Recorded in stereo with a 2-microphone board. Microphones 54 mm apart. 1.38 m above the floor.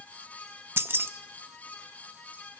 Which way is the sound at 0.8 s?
45° right (ahead or behind).